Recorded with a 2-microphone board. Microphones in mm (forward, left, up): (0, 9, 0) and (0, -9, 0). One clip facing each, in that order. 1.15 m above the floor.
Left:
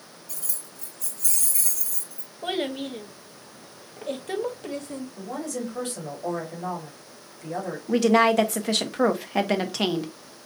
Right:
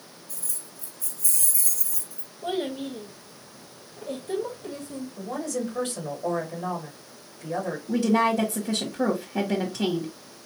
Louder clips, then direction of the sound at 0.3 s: Left 1 dB; 65° left (ahead or behind).